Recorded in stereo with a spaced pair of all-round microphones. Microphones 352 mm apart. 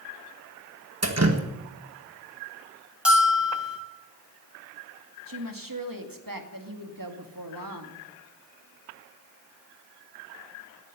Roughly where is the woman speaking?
Right.